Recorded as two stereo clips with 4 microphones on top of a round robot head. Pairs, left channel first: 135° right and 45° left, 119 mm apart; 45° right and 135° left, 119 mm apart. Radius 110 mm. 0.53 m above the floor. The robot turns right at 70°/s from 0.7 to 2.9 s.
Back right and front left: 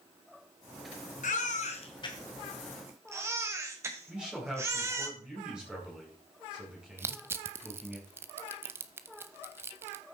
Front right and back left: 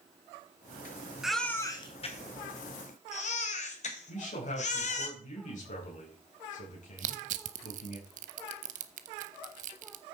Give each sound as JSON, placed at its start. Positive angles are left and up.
{"t": 1.2, "sound": "a baby crying", "azimuth_deg": -140, "distance_m": 2.0}
{"t": 4.1, "sound": "a man speaking", "azimuth_deg": -40, "distance_m": 4.5}
{"t": 7.0, "sound": "crushing", "azimuth_deg": 115, "distance_m": 0.7}